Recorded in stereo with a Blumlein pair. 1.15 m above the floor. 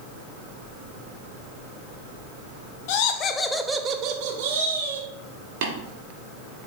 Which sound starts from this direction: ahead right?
Tapping, at 5.6 s.